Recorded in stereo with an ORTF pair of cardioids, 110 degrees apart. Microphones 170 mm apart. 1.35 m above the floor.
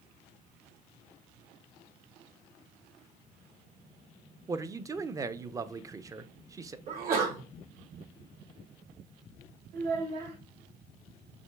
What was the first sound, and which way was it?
A man speaking, 20° right.